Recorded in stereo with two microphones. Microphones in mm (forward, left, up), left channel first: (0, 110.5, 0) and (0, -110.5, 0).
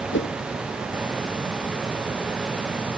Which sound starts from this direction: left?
A whoosh, at 0.1 s.